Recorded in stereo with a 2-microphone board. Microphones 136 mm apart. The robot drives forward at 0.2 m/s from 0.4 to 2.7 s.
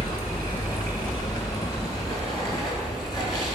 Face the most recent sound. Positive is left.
turn(degrees=25)  # may be behind; listen again after turning